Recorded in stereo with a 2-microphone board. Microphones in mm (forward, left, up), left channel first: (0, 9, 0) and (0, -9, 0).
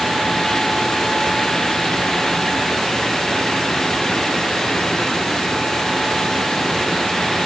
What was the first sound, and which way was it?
Only background noise.